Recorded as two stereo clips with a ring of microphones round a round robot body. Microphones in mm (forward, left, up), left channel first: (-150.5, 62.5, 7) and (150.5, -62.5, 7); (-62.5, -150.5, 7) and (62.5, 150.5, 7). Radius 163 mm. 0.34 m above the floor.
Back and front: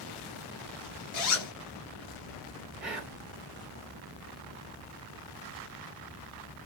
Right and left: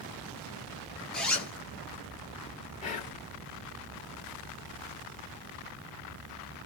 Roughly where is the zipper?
Behind.